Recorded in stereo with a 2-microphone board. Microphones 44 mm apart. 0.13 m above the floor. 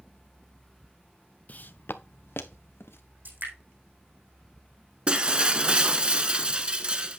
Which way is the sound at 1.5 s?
40° left (ahead or behind).